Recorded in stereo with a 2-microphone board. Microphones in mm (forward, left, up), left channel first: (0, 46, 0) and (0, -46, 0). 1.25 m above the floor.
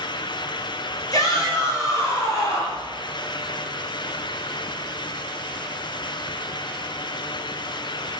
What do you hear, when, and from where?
1.1 s a shout: 40° left (ahead or behind), 5 m; by 2.9 s 30° left (ahead or behind), 6 m